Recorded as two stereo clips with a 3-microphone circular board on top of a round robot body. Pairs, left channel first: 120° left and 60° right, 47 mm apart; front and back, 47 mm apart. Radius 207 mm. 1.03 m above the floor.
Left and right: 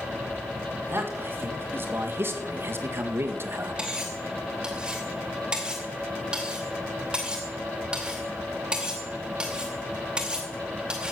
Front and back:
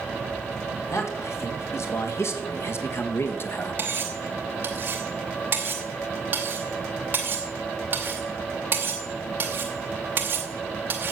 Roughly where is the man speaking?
Ahead.